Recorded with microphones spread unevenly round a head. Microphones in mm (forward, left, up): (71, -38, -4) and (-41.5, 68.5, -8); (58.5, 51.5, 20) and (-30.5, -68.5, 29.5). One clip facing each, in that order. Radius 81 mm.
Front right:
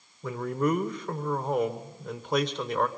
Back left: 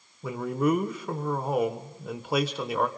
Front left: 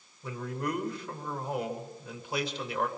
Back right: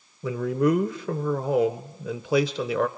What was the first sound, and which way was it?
A man speaking, 140° right.